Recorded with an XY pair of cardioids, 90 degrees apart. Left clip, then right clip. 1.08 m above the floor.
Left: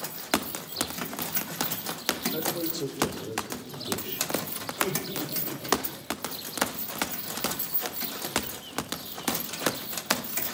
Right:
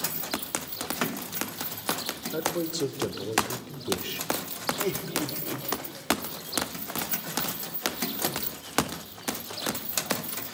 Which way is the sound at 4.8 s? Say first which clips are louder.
Left 5 dB; 30° right.